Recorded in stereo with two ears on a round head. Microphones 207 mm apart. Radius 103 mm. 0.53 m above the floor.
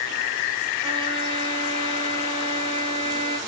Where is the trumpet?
25° right (ahead or behind), 1.6 m.